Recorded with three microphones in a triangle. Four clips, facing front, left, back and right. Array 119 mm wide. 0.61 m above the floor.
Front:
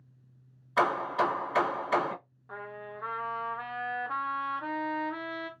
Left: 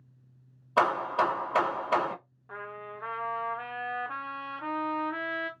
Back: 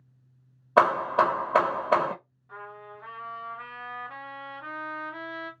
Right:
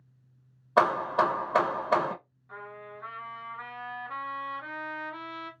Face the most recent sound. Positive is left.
turn(degrees=45)